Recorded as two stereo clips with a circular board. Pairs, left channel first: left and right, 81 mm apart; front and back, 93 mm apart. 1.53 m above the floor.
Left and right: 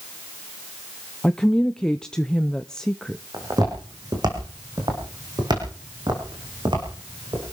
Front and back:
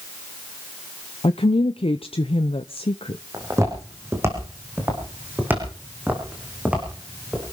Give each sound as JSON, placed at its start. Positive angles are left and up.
{"t": 1.2, "sound": "a woman speaking", "azimuth_deg": 10, "distance_m": 0.7}
{"t": 3.3, "sound": "footsteps", "azimuth_deg": -125, "distance_m": 5.5}